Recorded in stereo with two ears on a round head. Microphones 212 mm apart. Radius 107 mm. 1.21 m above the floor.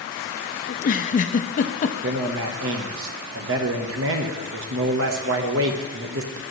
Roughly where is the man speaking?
Right.